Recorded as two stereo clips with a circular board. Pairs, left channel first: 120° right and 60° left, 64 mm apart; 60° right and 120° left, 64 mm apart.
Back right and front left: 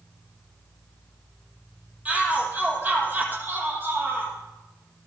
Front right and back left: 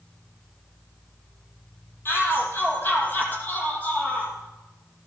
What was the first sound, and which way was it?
A shout, 10° right.